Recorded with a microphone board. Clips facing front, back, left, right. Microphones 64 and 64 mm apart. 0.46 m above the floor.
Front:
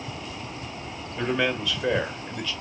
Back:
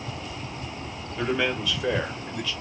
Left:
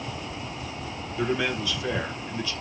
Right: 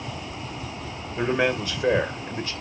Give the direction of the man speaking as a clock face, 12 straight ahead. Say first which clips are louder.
Even, right 4 dB; 3 o'clock.